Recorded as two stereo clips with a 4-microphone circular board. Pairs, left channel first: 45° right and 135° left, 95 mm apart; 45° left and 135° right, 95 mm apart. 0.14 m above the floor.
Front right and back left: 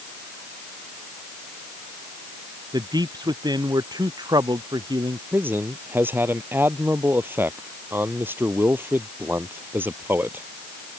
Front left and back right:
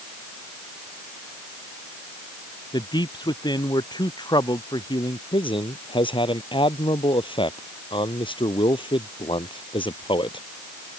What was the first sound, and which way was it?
A man speaking, 90° left.